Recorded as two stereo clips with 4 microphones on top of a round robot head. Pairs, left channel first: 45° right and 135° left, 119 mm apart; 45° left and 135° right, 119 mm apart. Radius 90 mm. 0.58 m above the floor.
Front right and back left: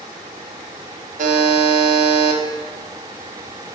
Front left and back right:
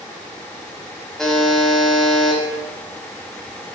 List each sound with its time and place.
1.2 s a buzzer: 130° left, 0.5 m